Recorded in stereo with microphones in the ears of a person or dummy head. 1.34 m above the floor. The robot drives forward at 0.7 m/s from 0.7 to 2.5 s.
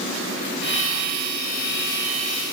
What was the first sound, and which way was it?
Only background noise.